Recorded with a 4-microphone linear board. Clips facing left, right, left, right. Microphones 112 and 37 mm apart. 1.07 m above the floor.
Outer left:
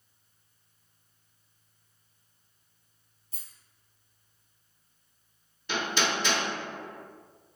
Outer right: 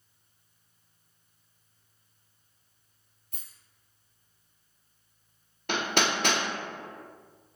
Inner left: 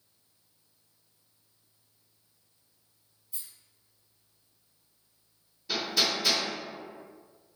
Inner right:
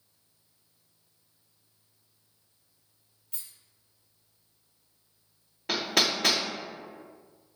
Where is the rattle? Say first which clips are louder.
Outer right 1 dB, even; 60° right (ahead or behind), 0.8 m.